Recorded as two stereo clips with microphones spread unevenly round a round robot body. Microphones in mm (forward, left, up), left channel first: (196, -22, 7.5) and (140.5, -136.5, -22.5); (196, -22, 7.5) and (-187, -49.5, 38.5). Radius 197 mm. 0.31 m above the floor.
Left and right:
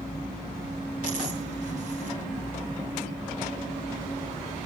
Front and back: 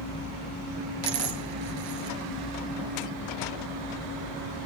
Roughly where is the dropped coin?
Behind right.